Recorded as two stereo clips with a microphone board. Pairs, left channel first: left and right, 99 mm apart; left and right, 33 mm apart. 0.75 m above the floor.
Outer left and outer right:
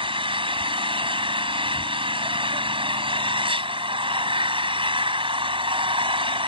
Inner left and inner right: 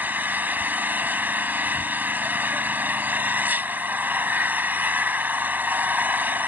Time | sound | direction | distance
0.0 | an engine running | 75° right (ahead or behind) | ?